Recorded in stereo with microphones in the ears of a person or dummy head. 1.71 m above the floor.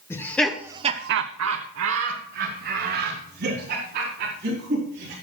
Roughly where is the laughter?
Centre.